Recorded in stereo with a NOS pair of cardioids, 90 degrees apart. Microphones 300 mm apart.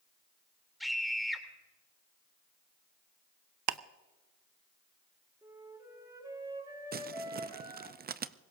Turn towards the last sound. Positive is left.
turn(degrees=-30)